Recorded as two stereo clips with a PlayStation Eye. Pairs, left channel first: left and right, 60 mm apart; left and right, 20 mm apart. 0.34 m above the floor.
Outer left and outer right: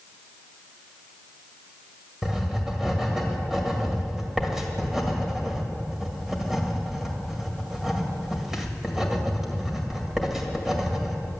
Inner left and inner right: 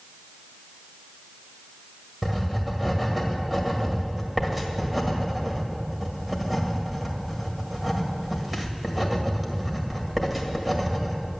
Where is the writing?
10° right (ahead or behind), 1.9 m.